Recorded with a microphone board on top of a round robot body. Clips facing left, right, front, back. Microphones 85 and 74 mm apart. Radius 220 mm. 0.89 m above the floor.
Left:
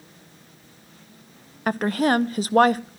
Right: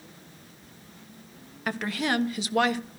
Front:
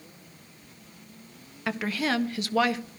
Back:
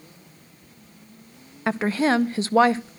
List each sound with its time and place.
1.7 s a woman speaking: 130° left, 1.0 m